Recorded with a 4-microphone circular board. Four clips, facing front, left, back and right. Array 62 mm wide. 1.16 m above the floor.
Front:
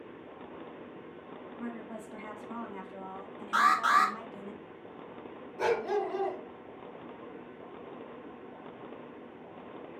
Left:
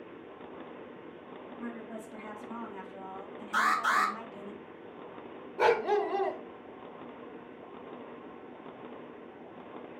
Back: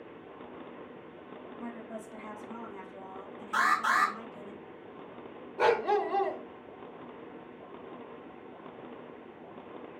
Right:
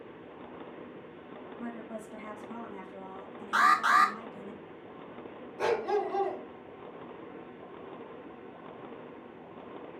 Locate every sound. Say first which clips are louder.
1.6 s a woman speaking: right 1 dB, front 1 dB; 15° right, 1.9 m; by 4.5 s 50° left, 0.9 m
3.5 s an alarm: right 4 dB, front 2 dB; 50° right, 1.9 m
5.6 s a dog barking: left 3 dB, back 3 dB; 140° left, 0.7 m